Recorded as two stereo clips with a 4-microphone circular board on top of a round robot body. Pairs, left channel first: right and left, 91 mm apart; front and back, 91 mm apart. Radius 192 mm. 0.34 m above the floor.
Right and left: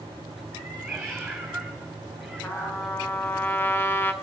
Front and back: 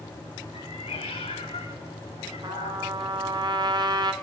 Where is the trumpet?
150° right, 2 m.